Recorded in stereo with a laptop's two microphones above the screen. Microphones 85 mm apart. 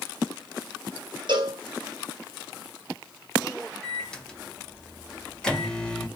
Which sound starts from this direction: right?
A cowbell, at 1.3 s.